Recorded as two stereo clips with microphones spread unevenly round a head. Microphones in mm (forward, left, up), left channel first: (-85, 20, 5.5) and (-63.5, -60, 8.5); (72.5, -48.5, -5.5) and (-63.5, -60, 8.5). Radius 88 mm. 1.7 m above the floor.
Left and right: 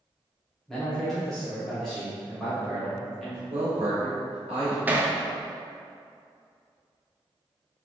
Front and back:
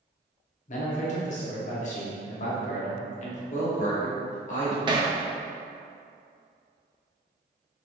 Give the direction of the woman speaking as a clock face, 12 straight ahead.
1 o'clock.